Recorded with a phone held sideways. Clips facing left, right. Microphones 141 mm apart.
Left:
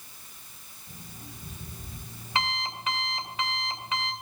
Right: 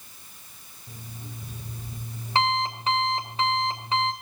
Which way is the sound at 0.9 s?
35° right (ahead or behind).